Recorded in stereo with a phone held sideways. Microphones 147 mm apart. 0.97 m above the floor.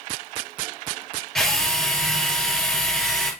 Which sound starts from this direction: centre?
A drill, at 1.4 s.